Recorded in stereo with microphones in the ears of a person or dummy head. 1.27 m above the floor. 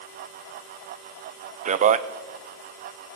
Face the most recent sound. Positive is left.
turn(degrees=-35)  # may be behind; listen again after turning